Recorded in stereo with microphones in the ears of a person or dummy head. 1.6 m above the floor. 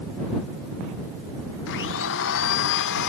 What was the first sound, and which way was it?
A blender, 60° left (ahead or behind).